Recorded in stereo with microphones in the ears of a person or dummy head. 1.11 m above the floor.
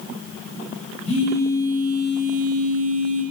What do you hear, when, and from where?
1.1 s a phone buzzing: 25° left (ahead or behind), 0.7 m